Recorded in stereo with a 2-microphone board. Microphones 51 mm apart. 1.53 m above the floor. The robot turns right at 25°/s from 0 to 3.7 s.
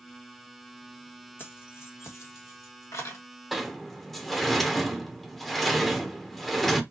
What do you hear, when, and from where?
1.4 s keys jangling: 45° left (ahead or behind), 1.6 m; by 3.2 s 75° left (ahead or behind), 1.6 m
3.5 s a sliding door: 5° right (ahead or behind), 1.0 m; by 6.8 s centre (ahead or behind), 1.0 m